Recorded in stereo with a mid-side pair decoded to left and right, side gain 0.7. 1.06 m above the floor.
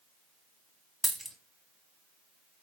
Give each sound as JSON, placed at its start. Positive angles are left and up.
{"t": 1.0, "sound": "a dropped coin", "azimuth_deg": -10, "distance_m": 1.0}